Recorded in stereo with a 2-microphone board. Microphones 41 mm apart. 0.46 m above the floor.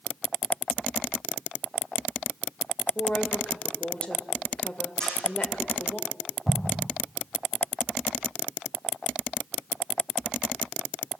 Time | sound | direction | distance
3.0 | a woman speaking | 25° left (ahead or behind) | 1.9 m
5.0 | a camera shutter | 20° left (ahead or behind) | 8.5 m
6.5 | an explosion | 10° right (ahead or behind) | 0.9 m